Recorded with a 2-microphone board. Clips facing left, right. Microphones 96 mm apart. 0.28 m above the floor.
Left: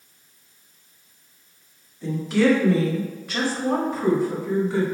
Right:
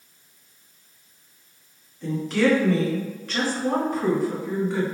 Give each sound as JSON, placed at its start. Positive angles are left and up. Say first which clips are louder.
{"t": 2.0, "sound": "a woman speaking", "louder": "left 2 dB", "side_deg": 5, "distance_m": 1.7}